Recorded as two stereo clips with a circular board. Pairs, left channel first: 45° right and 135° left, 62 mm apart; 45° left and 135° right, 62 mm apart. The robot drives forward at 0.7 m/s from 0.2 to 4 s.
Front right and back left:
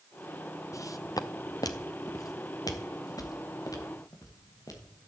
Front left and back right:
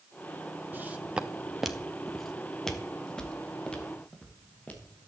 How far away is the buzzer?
No buzzer in this recording.